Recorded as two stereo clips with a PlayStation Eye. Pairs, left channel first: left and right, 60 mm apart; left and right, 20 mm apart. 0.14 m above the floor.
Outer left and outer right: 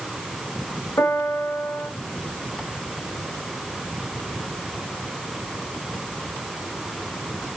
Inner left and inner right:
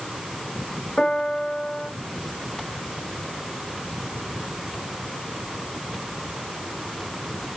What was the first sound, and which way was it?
A piano, 55° left (ahead or behind).